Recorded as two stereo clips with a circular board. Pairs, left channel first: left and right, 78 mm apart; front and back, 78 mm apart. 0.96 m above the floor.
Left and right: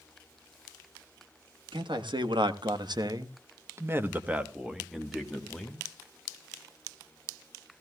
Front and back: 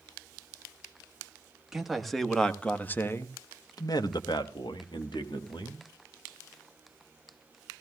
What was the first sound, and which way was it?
A man speaking, 95° right.